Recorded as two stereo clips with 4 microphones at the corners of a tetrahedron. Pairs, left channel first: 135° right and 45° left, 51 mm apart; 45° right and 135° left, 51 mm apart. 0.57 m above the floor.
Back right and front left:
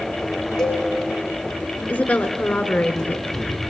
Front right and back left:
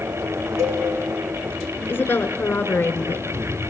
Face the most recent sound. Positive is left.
turn(degrees=-80)